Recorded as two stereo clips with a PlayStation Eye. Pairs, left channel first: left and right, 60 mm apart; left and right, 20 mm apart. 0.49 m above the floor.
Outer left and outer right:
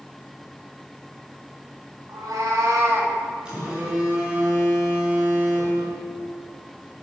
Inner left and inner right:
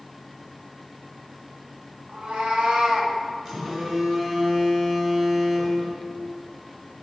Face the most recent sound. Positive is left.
turn(degrees=-15)  # may be behind; listen again after turning